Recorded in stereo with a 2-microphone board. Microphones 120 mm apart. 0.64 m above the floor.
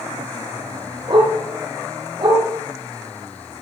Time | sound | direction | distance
1.1 | a dog barking | 40° right (ahead or behind) | 5 m